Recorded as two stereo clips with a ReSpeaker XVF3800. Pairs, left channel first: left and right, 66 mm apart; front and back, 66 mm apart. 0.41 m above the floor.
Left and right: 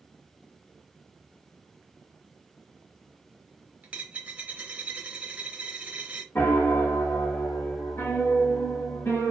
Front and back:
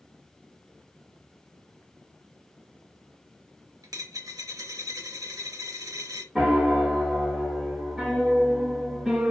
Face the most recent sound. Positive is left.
turn(degrees=100)